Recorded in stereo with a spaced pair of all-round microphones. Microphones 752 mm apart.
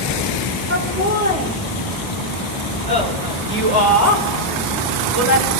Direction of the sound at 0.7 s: 15° right (ahead or behind).